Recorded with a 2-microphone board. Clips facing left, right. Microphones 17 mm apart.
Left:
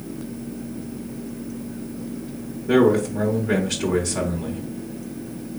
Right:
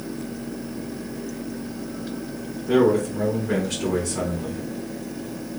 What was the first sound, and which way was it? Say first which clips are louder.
A man speaking: left 2 dB; 15° left (ahead or behind).